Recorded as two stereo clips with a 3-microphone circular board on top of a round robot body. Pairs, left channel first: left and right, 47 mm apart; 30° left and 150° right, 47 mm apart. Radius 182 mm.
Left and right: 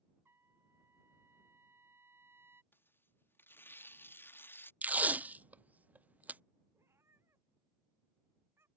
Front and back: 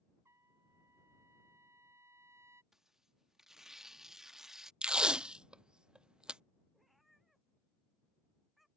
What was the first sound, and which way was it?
A trumpet, 125° right.